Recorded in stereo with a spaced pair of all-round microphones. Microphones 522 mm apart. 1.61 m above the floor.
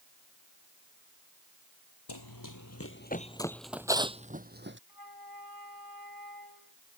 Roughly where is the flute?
Left.